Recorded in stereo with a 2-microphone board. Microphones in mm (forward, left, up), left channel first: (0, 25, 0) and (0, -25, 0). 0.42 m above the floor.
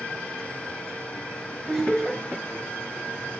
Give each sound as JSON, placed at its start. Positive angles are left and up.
{"t": 1.7, "sound": "laughter", "side_deg": 0, "distance_m": 2.5}